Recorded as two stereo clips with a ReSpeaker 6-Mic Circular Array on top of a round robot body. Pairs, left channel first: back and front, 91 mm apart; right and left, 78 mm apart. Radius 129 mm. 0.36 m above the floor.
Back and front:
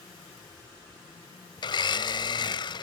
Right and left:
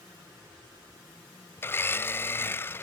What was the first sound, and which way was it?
A blender, 150° right.